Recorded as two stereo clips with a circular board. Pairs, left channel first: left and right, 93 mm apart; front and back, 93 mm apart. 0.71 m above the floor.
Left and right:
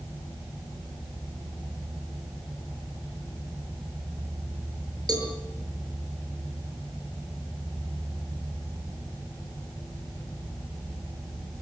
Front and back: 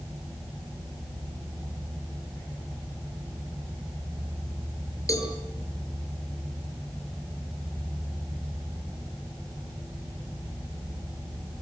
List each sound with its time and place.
5.1 s a cowbell: 50° right, 6 m